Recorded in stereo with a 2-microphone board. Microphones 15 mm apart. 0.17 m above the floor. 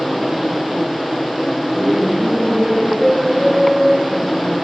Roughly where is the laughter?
Centre.